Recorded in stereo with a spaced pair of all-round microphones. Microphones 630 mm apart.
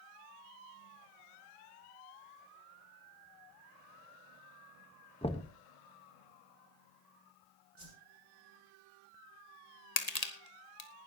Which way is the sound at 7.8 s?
50° right (ahead or behind).